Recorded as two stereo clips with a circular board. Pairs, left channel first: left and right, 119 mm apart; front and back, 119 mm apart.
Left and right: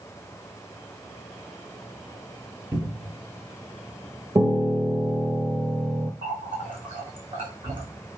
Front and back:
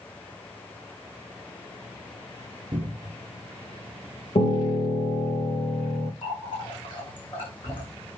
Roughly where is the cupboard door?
Behind right.